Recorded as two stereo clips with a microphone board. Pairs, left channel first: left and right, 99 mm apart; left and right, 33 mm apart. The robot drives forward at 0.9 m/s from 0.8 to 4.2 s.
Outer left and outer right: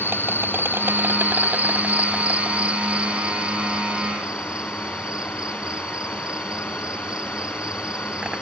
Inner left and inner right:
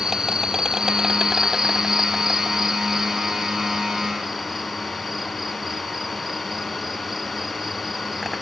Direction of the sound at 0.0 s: 20° right (ahead or behind).